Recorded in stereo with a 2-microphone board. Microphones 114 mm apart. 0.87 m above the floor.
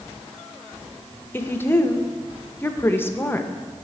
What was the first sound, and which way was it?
A woman speaking, 20° left (ahead or behind).